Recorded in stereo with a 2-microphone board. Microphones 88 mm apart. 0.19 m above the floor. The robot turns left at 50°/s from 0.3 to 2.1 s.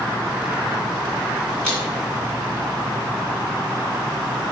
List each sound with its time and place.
1.6 s a man speaking: 10° left (ahead or behind), 1.9 m; by 1.8 s 5° left (ahead or behind), 1.9 m